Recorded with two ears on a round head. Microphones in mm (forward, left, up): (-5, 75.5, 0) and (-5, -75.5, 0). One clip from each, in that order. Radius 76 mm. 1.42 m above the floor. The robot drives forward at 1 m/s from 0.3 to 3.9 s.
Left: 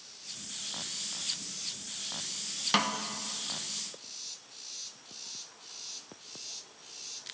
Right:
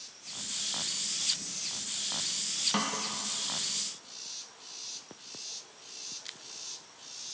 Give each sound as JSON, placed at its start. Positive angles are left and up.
{"t": 2.7, "sound": "a snare drum", "side_deg": 50, "distance_m": 0.7}